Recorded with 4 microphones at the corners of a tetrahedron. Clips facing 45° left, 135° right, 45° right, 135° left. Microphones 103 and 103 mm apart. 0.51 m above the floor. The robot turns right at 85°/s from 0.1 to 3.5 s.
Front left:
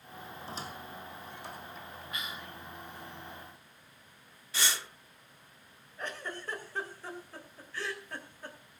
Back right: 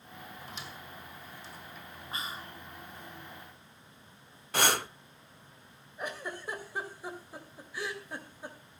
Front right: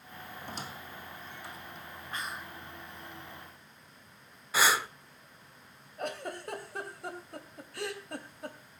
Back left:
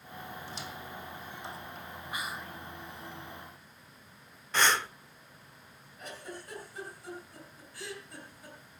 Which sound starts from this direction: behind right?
Breathing, at 4.5 s.